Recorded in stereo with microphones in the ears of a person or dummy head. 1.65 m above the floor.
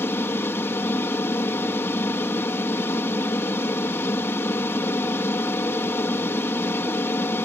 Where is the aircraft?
10° left (ahead or behind).